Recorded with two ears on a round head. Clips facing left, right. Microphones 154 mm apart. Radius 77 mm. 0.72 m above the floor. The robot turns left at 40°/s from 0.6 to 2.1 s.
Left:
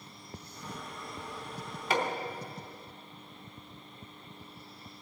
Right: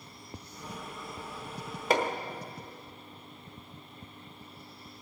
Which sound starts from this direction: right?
Hammering, at 1.9 s.